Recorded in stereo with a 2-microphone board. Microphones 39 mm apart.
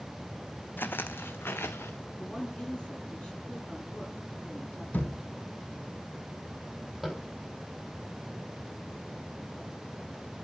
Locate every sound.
0.8 s footsteps: 55° left (ahead or behind), 0.8 m; by 2.0 s 80° left, 1.3 m
2.2 s a woman speaking: 30° left (ahead or behind), 8.5 m
4.9 s a thud: 50° left (ahead or behind), 2 m
7.0 s tapping: centre (ahead or behind), 4 m